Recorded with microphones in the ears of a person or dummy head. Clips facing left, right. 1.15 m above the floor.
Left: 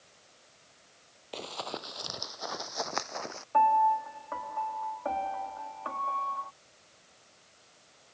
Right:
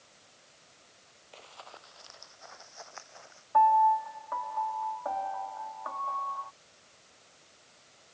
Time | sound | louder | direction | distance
1.3 | running footsteps | left 13 dB | 55° left (ahead or behind) | ?
3.5 | a piano | right 2 dB | 35° left (ahead or behind) | ?